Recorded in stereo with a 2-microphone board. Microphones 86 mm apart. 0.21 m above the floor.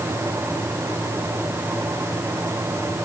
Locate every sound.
Only background noise.